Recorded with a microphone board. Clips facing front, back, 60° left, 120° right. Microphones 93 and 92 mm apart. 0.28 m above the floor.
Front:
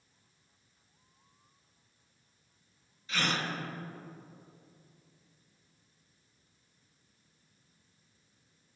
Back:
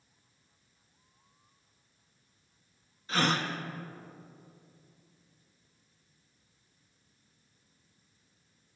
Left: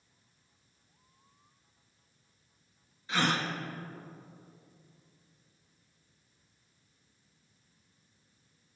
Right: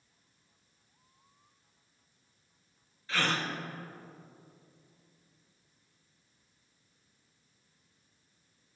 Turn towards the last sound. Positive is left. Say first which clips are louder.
# back 4 dB, left 2 dB
turn(degrees=130)